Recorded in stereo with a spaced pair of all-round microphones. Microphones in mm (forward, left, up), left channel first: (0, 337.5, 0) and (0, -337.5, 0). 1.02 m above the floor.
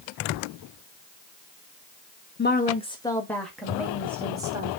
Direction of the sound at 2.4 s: 15° left (ahead or behind).